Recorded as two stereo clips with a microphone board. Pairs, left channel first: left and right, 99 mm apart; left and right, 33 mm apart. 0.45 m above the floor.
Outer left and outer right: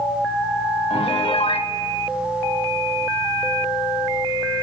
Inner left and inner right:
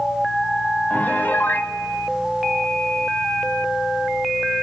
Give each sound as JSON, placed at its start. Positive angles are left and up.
{"t": 0.9, "sound": "a piano", "side_deg": 70, "distance_m": 0.8}